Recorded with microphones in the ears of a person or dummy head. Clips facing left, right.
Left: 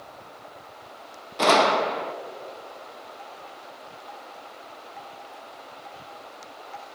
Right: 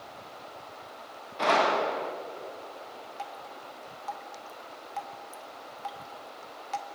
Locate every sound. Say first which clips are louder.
1.4 s a gunshot: left 5 dB; 50° left (ahead or behind), 1.4 m
3.2 s dripping: right 1 dB; 55° right (ahead or behind), 1.3 m